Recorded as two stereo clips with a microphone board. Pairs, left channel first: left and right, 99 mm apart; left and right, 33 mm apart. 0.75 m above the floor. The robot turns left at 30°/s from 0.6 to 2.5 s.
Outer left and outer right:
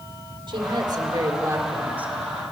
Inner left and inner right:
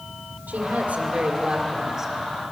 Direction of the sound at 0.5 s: 120° right.